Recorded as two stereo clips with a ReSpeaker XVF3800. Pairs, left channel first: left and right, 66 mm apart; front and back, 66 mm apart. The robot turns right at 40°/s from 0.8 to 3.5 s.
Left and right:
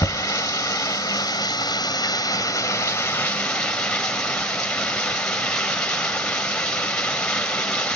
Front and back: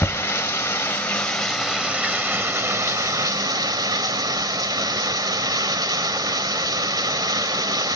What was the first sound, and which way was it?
Running water, 60° left.